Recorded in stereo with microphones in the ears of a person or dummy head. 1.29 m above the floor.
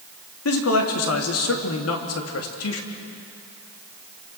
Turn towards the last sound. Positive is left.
turn(degrees=75)  # may be behind; listen again after turning